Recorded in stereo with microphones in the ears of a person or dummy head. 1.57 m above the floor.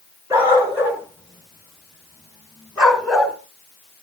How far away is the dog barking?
About 5.5 m.